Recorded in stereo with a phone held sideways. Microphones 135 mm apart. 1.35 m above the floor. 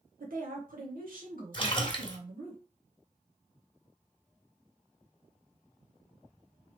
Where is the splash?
35° left (ahead or behind), 1.4 m.